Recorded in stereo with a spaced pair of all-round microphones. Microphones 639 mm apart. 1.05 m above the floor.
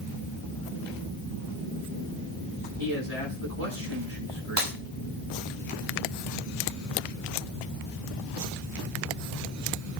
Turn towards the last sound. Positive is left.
turn(degrees=-45)  # may be behind; listen again after turning